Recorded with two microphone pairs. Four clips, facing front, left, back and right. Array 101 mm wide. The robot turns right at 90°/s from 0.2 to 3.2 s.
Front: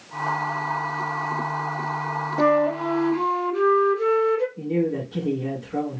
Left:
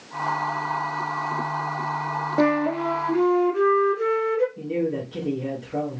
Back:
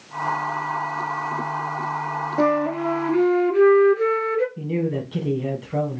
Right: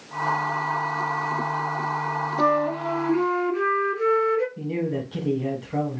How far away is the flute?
About 0.6 m.